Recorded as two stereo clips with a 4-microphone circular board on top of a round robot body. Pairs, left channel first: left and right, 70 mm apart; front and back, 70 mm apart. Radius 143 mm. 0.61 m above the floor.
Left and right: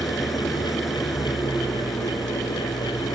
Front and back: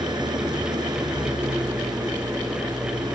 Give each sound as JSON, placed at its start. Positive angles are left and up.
{"t": 0.0, "sound": "an engine running", "azimuth_deg": 180}